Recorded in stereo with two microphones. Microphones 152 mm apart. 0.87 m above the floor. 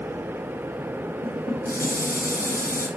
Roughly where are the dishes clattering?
Left.